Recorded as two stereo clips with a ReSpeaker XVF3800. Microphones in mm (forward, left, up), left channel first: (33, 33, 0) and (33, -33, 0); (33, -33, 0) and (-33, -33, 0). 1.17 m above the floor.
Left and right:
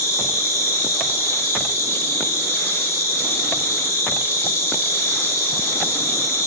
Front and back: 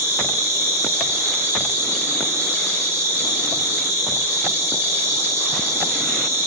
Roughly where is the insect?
Behind left.